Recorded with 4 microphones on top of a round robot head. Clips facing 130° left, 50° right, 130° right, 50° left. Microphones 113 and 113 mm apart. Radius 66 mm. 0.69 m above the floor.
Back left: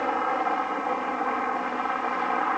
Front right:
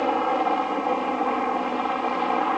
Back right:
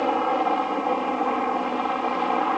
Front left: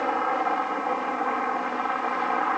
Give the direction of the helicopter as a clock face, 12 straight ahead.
3 o'clock.